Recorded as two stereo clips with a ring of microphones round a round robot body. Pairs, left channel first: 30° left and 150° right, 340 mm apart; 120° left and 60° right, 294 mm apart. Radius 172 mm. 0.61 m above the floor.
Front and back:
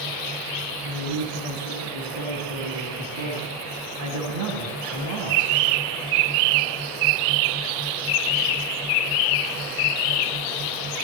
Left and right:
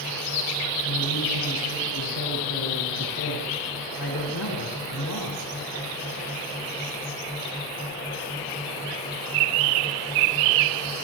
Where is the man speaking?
165° left, 5 m.